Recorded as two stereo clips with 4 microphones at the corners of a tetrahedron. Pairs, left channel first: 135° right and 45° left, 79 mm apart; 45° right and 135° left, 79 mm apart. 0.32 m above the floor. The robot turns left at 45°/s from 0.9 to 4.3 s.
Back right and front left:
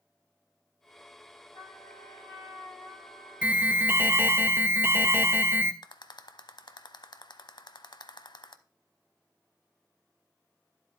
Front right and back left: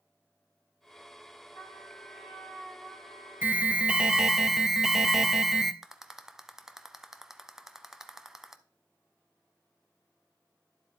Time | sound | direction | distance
1.5 | a trumpet | 100° right | 7 m
3.4 | an alarm | 95° left | 0.6 m
5.8 | a rattle | 140° right | 0.7 m